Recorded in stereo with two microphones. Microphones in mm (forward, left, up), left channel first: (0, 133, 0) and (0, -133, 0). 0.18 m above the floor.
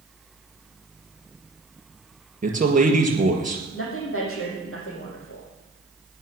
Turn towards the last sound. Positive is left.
turn(degrees=55)  # may be behind; listen again after turning